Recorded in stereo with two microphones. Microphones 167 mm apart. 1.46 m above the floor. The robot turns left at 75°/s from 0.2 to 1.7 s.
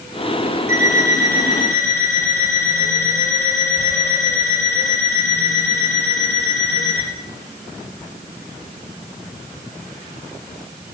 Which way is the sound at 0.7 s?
65° right.